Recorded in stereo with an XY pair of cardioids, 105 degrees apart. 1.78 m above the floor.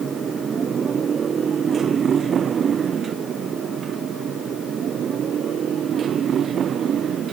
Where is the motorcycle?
40° right; by 7.3 s 55° right.